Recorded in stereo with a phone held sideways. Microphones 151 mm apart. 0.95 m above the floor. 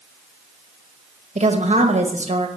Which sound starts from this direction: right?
A woman speaking, at 1.4 s.